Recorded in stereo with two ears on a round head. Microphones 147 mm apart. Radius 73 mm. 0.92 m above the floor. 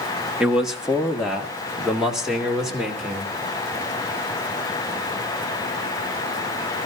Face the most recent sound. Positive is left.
turn(degrees=0)  # may be behind; listen again after turning